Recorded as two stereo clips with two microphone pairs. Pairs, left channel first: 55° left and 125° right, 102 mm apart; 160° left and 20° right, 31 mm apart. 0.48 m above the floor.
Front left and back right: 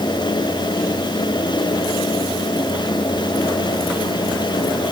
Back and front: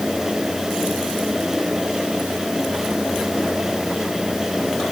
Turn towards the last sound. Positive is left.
No sound to turn to.